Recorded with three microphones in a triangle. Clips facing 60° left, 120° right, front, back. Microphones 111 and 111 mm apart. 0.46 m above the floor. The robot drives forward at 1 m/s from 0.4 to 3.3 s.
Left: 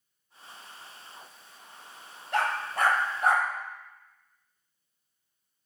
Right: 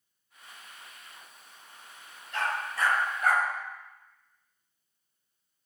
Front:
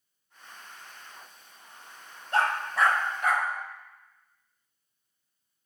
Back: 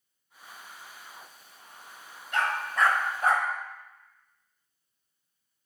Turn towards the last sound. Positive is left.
turn(degrees=125)